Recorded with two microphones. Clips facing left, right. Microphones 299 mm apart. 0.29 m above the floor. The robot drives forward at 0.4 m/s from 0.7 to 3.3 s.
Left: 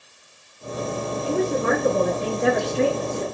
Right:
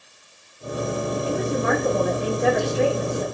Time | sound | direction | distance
1.2 | a woman speaking | 30° left (ahead or behind) | 2.5 m